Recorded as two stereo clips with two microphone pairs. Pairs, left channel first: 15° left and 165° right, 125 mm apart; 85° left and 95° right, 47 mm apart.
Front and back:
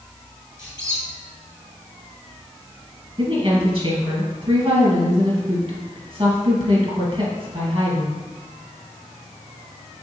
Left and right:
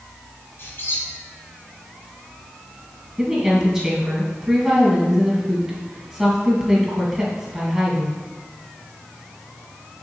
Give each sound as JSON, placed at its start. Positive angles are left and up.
{"t": 0.6, "sound": "a squeak", "azimuth_deg": 65, "distance_m": 1.9}
{"t": 3.2, "sound": "a woman speaking", "azimuth_deg": -160, "distance_m": 1.8}